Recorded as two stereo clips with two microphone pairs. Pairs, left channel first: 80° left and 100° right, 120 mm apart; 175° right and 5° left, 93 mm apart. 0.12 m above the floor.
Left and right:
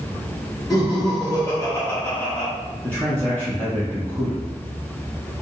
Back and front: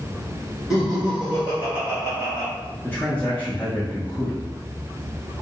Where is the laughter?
80° left, 1.8 m; by 2.5 s 20° left, 1.9 m.